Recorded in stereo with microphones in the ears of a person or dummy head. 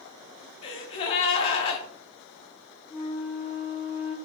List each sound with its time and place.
0.6 s a gasp: 35° left (ahead or behind), 0.7 m
2.9 s a flute: 10° right (ahead or behind), 1.3 m